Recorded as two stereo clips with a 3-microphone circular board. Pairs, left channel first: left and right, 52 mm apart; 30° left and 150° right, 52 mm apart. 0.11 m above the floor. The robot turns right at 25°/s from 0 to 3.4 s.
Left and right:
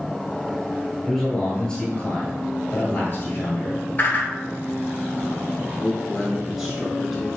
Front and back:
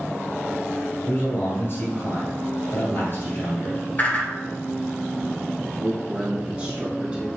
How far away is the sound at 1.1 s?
About 1.7 m.